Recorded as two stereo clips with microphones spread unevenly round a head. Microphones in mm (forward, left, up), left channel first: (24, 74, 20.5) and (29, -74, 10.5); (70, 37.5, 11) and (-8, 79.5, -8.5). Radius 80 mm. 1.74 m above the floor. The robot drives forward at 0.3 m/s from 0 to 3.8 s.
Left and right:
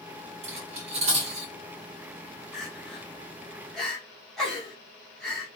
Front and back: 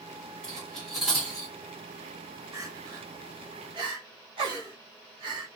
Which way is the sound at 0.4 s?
85° right.